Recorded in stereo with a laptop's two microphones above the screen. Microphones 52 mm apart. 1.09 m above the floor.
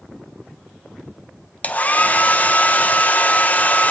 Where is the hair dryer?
30° left (ahead or behind), 0.8 m.